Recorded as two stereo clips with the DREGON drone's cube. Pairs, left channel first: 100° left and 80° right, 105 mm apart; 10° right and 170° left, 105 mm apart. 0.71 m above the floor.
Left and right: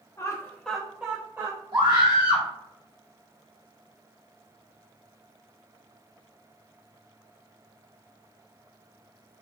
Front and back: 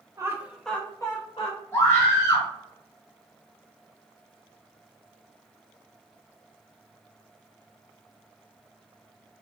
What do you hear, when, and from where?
0.2 s laughter: 135° left, 0.7 m; by 1.6 s 25° right, 1.0 m
1.7 s a scream: 65° right, 1.3 m